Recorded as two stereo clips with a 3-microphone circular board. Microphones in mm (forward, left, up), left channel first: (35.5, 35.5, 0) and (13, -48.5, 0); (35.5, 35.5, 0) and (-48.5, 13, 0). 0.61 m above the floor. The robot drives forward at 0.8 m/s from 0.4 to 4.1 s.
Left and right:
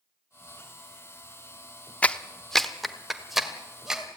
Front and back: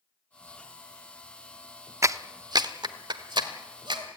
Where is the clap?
145° left, 0.6 m; by 4.0 s 170° left, 2 m.